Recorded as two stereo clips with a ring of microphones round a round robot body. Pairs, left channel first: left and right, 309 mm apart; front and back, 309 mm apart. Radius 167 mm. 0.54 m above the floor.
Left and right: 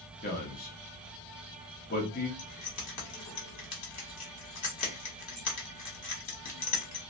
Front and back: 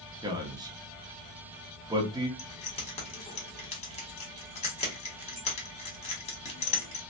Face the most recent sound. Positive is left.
turn(degrees=70)